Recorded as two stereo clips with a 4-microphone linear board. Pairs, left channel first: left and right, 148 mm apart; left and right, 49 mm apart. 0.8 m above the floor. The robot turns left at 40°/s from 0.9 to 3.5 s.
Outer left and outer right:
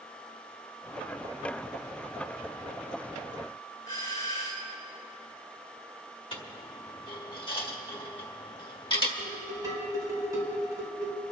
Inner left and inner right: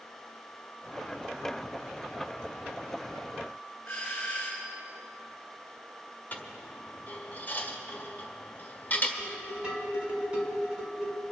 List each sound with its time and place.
3.9 s a doorbell: 25° left (ahead or behind), 5 m
6.3 s a dropped coin: 35° left (ahead or behind), 1.4 m
9.2 s dishes clattering: 25° right (ahead or behind), 4.5 m